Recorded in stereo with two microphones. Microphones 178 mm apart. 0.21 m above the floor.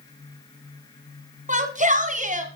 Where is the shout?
45° right (ahead or behind), 1.4 m.